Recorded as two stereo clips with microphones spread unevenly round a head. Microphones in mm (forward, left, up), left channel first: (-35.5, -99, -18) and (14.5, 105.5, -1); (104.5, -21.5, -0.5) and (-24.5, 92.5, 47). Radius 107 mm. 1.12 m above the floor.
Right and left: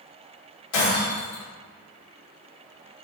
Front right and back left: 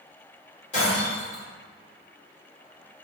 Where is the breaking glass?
105° right, 1.9 m.